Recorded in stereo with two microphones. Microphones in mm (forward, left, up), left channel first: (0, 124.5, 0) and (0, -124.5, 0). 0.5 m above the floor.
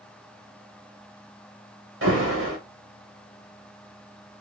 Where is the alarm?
60° right (ahead or behind), 1.1 m.